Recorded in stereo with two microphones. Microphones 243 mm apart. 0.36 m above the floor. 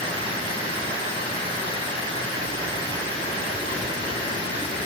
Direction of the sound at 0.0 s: 55° right (ahead or behind).